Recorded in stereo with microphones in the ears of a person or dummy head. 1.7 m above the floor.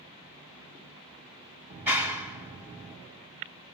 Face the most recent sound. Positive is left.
turn(degrees=-10)  # may be behind; listen again after turning